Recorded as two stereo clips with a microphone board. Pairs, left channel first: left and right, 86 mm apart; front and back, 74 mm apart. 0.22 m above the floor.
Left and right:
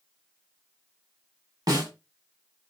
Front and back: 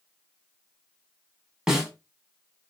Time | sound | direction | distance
1.7 | a snare drum | 100° right | 1.1 m